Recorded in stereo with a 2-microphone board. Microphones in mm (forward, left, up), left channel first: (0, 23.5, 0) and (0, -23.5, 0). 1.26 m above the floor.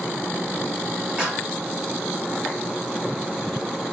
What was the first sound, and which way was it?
A clap, 25° right (ahead or behind).